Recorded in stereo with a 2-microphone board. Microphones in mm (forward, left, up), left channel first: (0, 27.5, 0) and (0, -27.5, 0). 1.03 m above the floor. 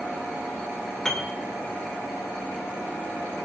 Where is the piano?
5° left (ahead or behind), 2.5 m.